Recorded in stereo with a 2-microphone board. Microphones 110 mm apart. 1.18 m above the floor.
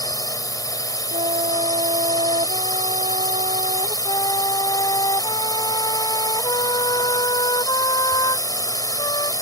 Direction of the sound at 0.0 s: 35° left (ahead or behind).